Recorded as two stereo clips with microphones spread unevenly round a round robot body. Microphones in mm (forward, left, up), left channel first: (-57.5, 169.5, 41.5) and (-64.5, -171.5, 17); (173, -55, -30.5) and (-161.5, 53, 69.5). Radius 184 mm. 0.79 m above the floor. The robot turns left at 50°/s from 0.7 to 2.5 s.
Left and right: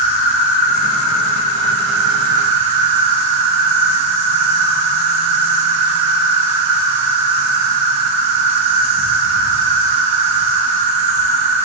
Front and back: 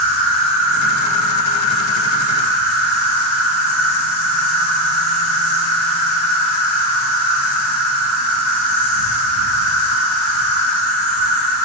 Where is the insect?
60° left, 3 m; by 11.7 s 30° right, 3 m.